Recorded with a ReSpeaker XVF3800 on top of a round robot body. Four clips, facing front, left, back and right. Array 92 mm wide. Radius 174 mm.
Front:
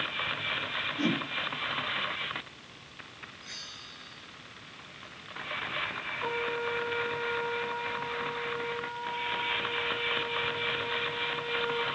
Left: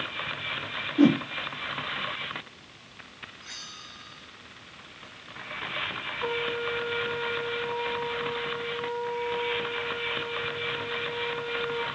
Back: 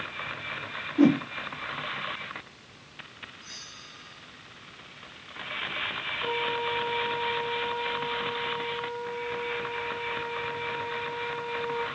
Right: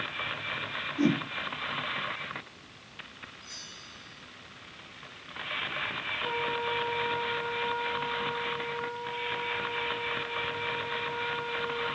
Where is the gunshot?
I don't hear a gunshot.